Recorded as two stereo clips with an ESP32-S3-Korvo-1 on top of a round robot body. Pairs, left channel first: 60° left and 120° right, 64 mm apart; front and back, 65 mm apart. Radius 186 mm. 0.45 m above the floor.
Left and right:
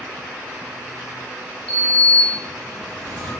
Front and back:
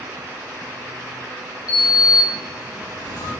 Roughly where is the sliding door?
Ahead.